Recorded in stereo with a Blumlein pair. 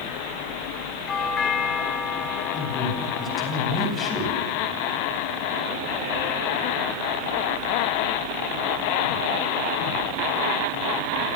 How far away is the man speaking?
About 9.5 m.